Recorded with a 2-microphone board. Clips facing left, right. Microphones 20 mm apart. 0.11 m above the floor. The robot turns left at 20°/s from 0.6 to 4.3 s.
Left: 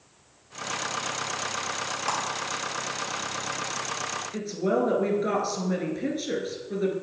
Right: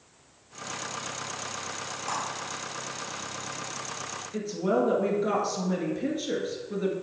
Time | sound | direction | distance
2.1 | a clap | 45° left (ahead or behind) | 2 m
4.3 | a woman speaking | 20° left (ahead or behind) | 1.7 m